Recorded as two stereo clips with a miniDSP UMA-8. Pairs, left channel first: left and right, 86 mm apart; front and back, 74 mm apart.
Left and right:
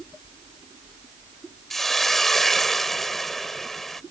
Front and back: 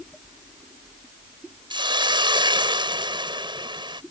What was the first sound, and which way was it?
A hiss, 175° left.